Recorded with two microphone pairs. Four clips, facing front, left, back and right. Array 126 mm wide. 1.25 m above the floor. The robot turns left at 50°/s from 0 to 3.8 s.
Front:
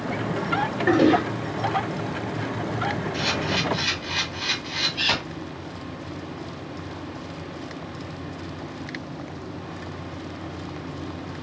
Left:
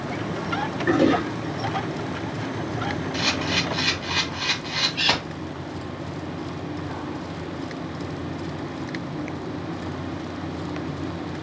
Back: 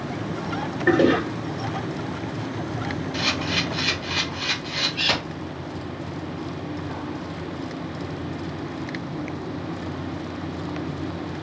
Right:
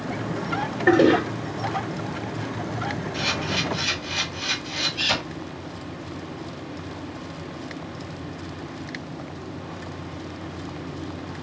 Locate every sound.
0.9 s a toilet flushing: 100° right, 2.5 m; by 1.2 s 115° right, 2.5 m
3.1 s a camera shutter: 125° left, 2 m; by 5.2 s 90° left, 2 m